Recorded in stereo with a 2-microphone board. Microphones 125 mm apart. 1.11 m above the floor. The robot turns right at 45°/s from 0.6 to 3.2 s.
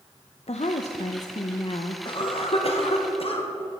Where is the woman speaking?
65° left, 0.5 m; by 1.9 s 125° left, 0.5 m.